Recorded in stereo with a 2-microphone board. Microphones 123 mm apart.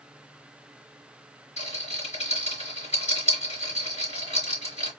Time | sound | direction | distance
1.6 | a rattle | 65° left (ahead or behind) | 3.5 m